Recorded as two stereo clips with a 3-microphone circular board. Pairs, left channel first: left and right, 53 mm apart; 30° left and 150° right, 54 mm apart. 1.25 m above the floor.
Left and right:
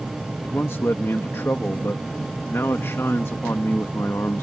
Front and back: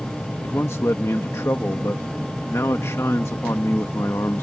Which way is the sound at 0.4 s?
55° left.